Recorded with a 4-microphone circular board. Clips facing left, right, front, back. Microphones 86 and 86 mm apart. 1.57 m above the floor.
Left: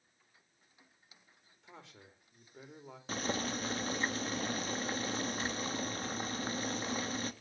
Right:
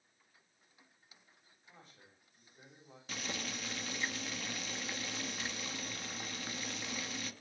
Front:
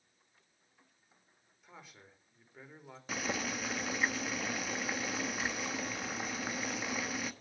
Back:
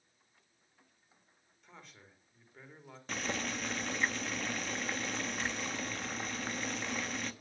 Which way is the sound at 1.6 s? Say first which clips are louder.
Left 6 dB, front 1 dB; 85° left.